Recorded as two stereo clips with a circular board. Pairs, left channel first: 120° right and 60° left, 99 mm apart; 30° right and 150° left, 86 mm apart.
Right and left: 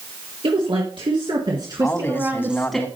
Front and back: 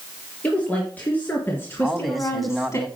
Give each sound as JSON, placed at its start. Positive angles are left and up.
{"t": 0.4, "sound": "a woman speaking", "azimuth_deg": 40, "distance_m": 4.0}
{"t": 1.8, "sound": "a man speaking", "azimuth_deg": -120, "distance_m": 1.4}